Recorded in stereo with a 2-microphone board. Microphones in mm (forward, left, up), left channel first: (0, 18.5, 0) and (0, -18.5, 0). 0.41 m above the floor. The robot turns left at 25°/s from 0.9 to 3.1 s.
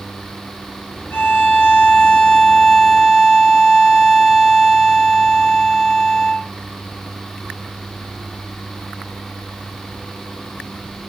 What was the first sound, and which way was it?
A violin, 45° left.